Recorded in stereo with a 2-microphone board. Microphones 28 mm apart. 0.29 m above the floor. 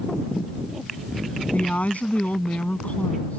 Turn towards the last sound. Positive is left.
turn(degrees=60)  # may be behind; listen again after turning